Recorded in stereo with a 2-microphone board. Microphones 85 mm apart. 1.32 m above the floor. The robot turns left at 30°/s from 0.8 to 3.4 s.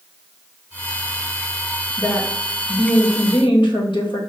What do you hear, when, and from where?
2.0 s a woman speaking: 145° left, 1.5 m; by 4.2 s 105° left, 1.5 m